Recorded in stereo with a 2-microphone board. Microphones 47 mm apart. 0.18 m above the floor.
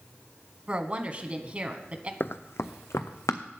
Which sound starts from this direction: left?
Running footsteps, at 2.2 s.